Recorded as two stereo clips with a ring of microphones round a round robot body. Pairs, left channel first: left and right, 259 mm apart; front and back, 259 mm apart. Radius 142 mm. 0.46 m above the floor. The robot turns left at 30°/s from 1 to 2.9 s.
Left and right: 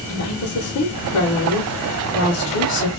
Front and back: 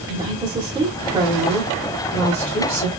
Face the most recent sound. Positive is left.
turn(degrees=45)